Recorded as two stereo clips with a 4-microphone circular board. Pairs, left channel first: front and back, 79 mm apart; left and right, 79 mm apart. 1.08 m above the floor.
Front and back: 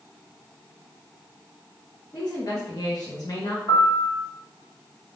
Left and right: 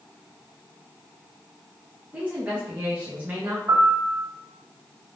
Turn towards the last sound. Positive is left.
turn(degrees=-30)